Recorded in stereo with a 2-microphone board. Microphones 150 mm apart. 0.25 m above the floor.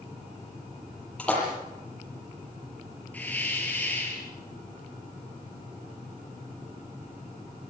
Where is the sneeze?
No sneeze in this recording.